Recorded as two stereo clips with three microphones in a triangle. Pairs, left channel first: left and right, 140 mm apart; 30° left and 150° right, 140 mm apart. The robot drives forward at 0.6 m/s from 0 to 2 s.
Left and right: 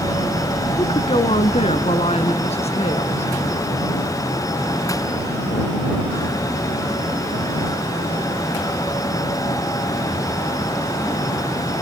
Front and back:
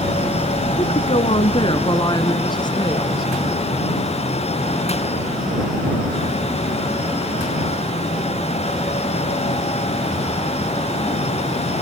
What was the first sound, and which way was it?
A woman speaking, 50° left.